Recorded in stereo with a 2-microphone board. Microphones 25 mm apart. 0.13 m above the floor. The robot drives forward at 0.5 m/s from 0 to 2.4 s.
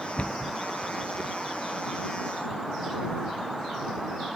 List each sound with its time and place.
0.2 s a cupboard door: 55° left (ahead or behind), 0.9 m; by 0.5 s 50° left (ahead or behind), 1.0 m